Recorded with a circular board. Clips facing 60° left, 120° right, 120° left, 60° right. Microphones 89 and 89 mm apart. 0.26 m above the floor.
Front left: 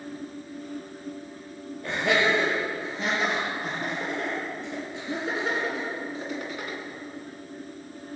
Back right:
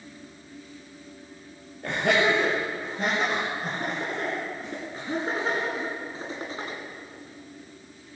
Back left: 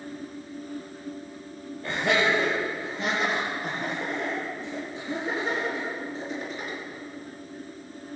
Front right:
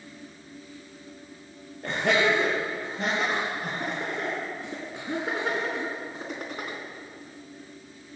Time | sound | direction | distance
1.8 | laughter | 90° right | 5 m